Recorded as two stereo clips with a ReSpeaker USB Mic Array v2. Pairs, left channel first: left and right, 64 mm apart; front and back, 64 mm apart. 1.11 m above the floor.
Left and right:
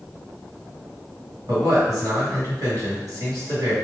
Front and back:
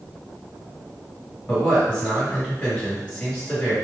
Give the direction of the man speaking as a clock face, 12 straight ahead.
3 o'clock.